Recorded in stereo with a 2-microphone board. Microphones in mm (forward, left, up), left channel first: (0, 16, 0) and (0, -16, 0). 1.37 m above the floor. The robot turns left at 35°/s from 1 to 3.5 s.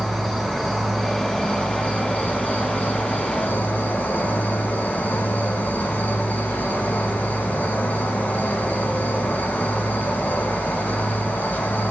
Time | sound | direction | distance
0.0 | an insect | 170° left | 2 m